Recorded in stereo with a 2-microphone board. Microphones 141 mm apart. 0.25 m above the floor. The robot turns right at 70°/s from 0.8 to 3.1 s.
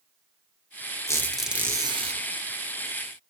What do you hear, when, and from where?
1.1 s a squeak: 155° left, 0.9 m; by 2.2 s 125° right, 0.9 m